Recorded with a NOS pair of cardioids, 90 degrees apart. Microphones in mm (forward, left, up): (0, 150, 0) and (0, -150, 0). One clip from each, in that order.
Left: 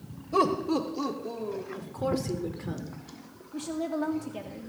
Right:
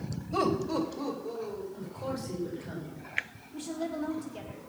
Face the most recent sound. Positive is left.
turn(degrees=45)